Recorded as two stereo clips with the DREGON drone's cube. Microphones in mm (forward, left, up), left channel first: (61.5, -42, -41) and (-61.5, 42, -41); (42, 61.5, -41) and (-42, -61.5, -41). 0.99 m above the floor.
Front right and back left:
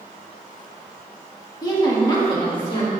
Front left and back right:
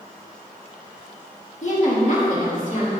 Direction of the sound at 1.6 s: 25° left.